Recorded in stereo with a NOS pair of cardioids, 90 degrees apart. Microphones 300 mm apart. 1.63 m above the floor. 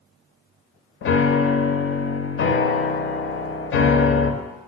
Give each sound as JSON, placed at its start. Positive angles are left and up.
{"t": 1.0, "sound": "a piano", "azimuth_deg": 40, "distance_m": 0.6}